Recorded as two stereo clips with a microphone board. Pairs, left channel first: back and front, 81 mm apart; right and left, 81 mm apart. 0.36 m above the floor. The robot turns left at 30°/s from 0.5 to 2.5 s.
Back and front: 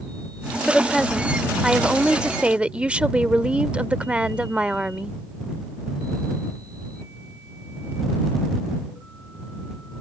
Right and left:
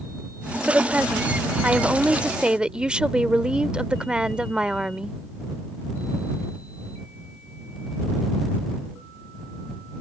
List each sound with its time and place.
0.7 s a woman speaking: 95° left; by 5.2 s 40° left